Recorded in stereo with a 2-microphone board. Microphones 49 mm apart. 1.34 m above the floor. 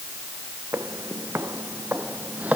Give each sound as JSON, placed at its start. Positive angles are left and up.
{"t": 0.7, "sound": "footsteps", "side_deg": -65}